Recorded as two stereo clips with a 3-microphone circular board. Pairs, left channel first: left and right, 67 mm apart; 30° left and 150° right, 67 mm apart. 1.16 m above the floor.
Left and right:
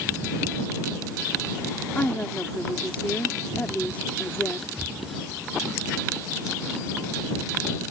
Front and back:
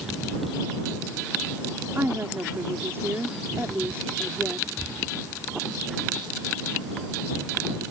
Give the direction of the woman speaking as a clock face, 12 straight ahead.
7 o'clock.